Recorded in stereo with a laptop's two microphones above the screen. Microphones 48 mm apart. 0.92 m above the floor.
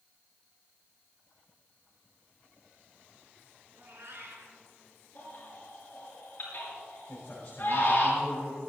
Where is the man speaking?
30° left (ahead or behind), 4.5 m.